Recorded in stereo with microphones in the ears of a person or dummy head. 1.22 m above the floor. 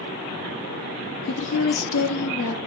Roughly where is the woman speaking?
Left.